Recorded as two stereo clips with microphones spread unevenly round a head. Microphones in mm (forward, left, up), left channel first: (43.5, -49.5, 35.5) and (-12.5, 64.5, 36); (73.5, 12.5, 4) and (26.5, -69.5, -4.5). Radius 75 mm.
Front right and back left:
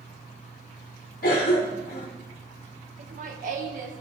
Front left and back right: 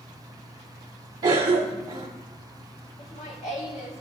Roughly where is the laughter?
Left.